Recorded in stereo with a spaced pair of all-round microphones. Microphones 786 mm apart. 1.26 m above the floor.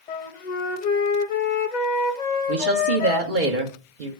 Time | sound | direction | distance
0.1 | a flute | 60° left (ahead or behind) | 0.9 m
2.5 | a woman speaking | 80° right | 1.6 m